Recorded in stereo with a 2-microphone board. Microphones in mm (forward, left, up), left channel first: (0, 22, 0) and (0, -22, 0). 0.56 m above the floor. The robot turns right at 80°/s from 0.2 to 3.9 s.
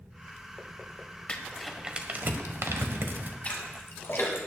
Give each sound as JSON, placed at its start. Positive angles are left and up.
{"t": 1.3, "sound": "crumpling", "side_deg": 30, "distance_m": 1.2}
{"t": 3.4, "sound": "a splash", "side_deg": 35, "distance_m": 2.5}